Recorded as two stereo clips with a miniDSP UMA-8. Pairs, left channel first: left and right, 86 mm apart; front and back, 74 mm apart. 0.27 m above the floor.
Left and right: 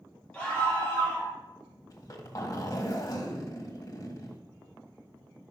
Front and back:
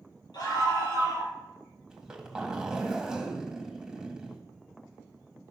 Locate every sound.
0.3 s a scream: 15° left, 6.5 m
1.9 s a zipper: 100° left, 1.8 m